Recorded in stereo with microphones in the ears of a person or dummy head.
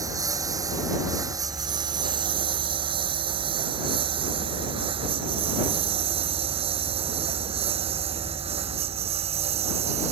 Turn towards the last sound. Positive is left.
turn(degrees=-35)  # may be behind; listen again after turning